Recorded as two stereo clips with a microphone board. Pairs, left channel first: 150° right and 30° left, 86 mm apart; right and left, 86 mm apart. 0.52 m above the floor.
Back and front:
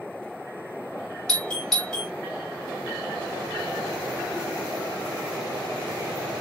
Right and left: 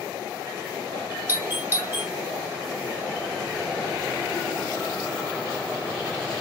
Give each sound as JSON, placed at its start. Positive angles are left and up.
{"t": 1.3, "sound": "a doorbell", "azimuth_deg": 130, "distance_m": 2.0}